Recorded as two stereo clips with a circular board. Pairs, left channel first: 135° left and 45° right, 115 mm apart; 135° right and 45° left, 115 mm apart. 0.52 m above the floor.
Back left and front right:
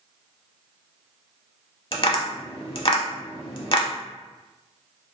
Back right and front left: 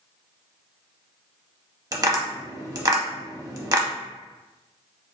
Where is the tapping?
100° left, 0.6 m.